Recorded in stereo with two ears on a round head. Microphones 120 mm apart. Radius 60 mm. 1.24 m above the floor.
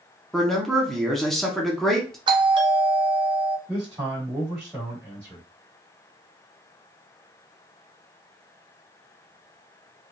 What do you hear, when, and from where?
0.3 s a man speaking: centre (ahead or behind), 0.8 m
2.3 s a doorbell: 35° right (ahead or behind), 0.6 m
3.7 s a man speaking: 20° right (ahead or behind), 1.8 m